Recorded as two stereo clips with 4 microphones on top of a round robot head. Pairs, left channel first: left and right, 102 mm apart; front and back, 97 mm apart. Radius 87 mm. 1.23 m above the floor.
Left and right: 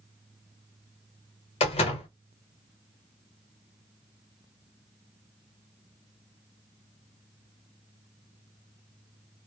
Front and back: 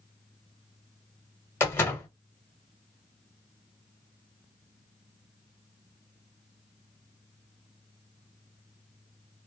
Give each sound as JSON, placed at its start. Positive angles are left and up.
{"t": 1.6, "sound": "a door slam", "azimuth_deg": 70, "distance_m": 1.0}